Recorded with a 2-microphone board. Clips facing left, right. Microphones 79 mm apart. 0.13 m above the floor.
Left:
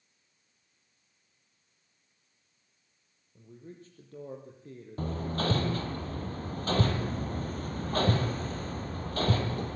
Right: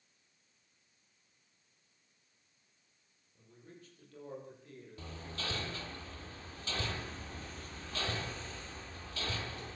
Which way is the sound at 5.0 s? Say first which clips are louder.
Left 13 dB; 50° left (ahead or behind).